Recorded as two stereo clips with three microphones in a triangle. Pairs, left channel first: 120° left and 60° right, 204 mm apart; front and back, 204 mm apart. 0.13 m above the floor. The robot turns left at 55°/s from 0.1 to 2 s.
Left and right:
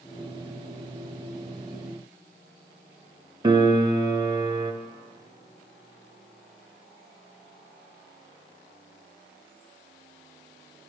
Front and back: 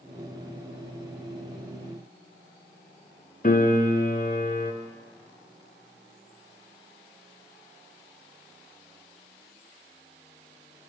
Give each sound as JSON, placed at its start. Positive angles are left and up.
{"t": 3.4, "sound": "a piano", "azimuth_deg": -5, "distance_m": 0.8}